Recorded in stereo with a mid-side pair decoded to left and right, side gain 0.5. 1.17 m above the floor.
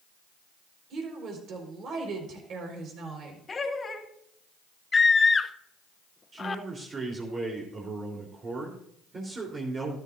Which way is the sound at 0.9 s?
60° right.